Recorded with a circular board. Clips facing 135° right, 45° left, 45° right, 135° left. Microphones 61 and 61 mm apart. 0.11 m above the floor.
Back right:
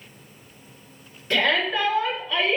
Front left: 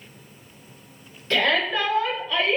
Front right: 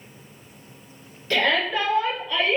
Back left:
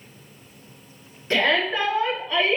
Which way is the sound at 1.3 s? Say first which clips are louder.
Even, back left 1 dB; 165° left.